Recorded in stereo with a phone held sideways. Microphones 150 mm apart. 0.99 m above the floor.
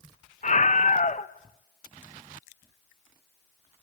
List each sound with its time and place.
0.4 s a scream: 55° left (ahead or behind), 1.0 m